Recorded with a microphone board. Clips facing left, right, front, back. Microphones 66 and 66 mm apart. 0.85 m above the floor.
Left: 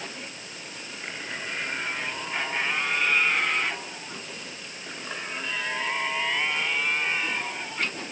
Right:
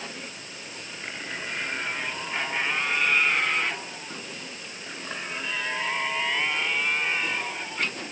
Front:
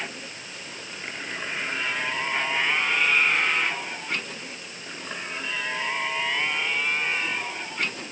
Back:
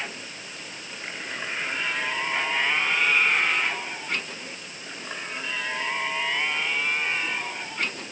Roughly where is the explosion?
No explosion in this recording.